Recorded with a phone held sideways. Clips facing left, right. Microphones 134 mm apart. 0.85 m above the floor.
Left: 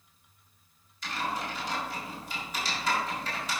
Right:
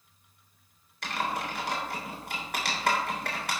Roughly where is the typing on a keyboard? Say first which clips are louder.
Right 2 dB; right.